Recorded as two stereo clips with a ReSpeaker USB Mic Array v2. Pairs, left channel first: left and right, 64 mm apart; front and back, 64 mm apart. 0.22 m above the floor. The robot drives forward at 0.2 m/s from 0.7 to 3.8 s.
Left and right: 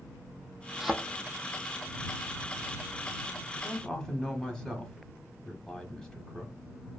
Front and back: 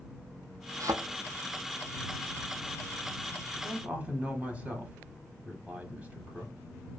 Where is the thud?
175° right, 0.5 m.